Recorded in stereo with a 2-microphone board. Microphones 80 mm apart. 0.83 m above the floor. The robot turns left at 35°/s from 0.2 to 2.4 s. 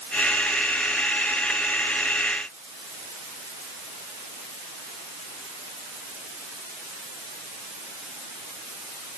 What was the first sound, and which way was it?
Only background noise.